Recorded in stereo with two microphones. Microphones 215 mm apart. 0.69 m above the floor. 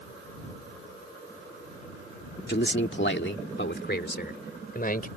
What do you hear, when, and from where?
2.5 s a man speaking: 50° left (ahead or behind); by 5.1 s 40° left (ahead or behind)